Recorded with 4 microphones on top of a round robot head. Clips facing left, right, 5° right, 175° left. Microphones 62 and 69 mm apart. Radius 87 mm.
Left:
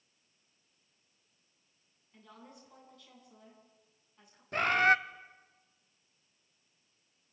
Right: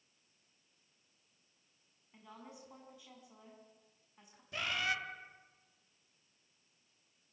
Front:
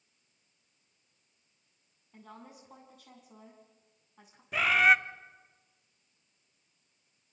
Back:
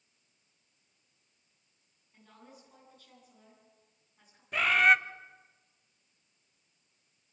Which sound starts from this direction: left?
A bird, at 4.5 s.